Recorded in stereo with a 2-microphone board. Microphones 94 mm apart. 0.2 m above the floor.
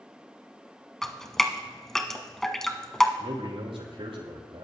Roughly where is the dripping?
Centre.